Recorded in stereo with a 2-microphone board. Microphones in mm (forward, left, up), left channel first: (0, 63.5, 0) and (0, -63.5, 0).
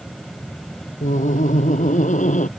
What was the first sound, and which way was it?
Laughter, 80° left.